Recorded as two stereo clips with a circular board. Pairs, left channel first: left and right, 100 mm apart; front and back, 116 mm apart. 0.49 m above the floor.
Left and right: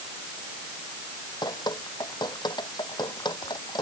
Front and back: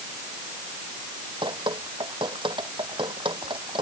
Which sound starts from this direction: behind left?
Dripping, at 1.4 s.